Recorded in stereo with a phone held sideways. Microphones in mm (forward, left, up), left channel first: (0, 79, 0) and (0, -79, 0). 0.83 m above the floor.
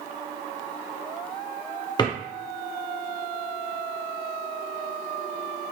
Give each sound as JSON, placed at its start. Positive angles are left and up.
{"t": 2.0, "sound": "a drawer", "side_deg": 25, "distance_m": 0.7}